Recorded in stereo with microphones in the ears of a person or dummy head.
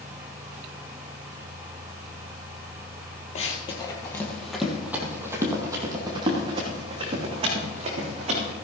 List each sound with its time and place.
3.4 s running footsteps: 30° left (ahead or behind), 1.7 m; by 8.5 s 40° right (ahead or behind), 4.5 m